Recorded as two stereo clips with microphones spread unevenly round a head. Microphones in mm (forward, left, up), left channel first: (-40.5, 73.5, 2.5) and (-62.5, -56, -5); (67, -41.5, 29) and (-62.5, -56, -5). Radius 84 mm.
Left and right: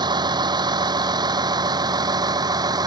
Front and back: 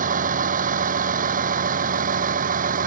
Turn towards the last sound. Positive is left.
turn(degrees=-160)